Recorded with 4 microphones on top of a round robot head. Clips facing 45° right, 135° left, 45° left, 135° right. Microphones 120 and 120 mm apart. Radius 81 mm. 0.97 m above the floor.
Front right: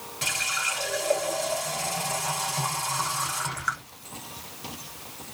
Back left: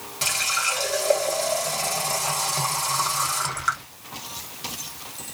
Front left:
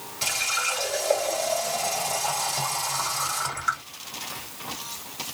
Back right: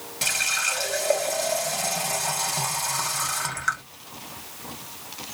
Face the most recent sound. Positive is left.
turn(degrees=-170)